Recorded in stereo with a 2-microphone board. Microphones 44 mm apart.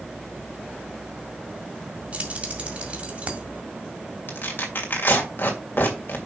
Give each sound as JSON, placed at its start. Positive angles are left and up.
{"t": 2.1, "sound": "keys jangling", "side_deg": -30, "distance_m": 2.0}
{"t": 4.3, "sound": "tearing paper", "side_deg": 45, "distance_m": 2.5}